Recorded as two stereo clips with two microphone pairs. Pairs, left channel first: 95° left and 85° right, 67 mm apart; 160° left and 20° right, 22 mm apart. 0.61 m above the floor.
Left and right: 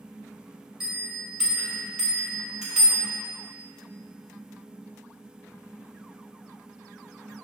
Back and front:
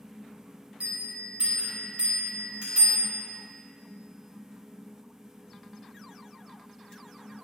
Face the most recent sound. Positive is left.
turn(degrees=0)